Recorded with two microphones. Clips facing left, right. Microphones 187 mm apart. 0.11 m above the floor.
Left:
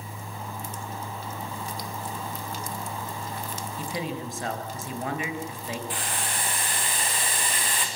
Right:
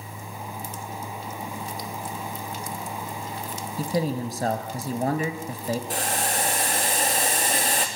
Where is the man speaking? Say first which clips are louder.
Right 8 dB; 40° right (ahead or behind), 2 m.